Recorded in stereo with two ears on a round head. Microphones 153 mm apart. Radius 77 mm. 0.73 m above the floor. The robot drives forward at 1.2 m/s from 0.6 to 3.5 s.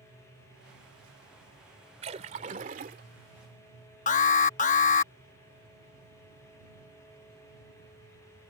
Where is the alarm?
50° left (ahead or behind).